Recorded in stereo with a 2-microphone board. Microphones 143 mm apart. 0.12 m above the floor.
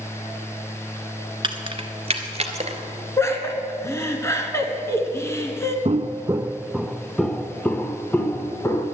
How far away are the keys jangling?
About 1.1 m.